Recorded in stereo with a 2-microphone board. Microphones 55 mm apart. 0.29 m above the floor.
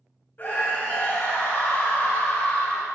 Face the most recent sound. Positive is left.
turn(degrees=40)  # may be behind; listen again after turning